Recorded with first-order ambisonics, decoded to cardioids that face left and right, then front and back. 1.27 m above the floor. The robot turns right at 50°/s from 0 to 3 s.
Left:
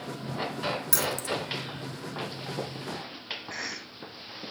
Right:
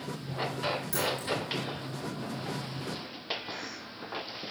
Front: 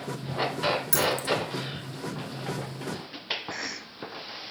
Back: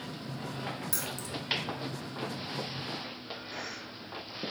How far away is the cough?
About 0.7 m.